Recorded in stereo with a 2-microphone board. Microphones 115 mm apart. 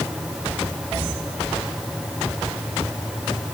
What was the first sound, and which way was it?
Only background noise.